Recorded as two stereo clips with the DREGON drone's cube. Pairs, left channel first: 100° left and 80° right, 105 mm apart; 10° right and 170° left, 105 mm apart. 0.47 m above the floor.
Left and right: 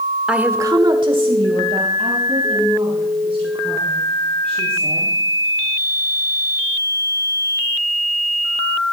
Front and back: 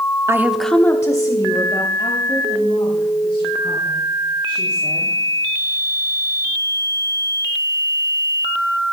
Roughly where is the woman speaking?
Behind right.